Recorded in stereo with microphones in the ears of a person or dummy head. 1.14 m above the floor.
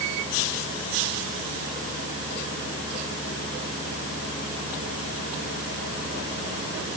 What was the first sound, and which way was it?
Only background noise.